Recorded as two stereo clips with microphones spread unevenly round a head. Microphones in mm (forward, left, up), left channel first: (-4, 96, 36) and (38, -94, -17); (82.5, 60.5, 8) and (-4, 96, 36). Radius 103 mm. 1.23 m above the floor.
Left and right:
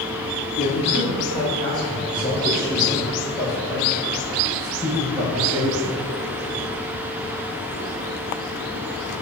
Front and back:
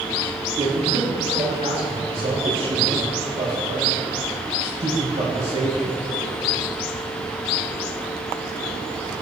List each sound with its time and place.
0.6 s a man speaking: 145° left, 2.5 m; by 5.9 s 155° right, 7.5 m